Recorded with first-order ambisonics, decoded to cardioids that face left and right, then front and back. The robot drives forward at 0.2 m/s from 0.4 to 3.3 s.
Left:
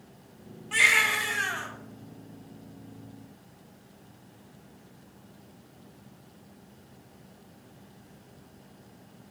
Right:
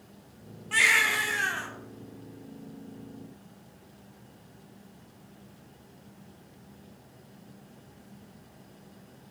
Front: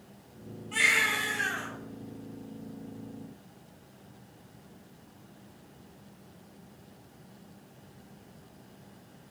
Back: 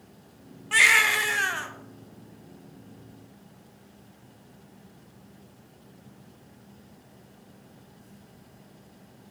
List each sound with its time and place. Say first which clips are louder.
0.7 s a baby crying: left 1 dB, back 6 dB; 175° right, 0.8 m